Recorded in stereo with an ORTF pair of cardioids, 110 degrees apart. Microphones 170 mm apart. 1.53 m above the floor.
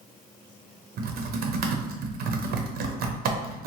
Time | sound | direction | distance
1.0 | typing on a keyboard | 60° right | 0.6 m